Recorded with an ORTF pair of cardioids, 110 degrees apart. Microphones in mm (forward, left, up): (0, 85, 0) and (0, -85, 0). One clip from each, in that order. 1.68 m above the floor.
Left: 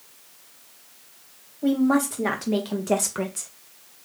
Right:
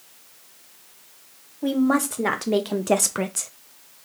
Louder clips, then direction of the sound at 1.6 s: Even; 15° right.